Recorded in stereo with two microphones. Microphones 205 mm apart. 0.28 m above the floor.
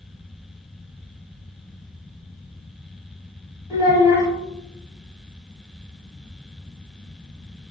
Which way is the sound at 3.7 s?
15° right (ahead or behind).